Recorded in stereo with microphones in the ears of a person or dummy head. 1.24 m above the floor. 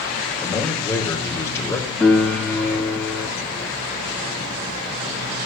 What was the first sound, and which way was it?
A man speaking, 15° left (ahead or behind).